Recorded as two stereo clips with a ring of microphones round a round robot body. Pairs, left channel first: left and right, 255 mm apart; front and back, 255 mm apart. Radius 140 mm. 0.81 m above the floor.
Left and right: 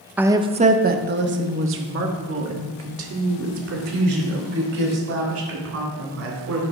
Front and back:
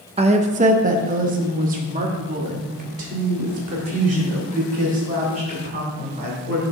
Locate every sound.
0.2 s a woman speaking: 165° right, 0.6 m; by 6.6 s 115° right, 4 m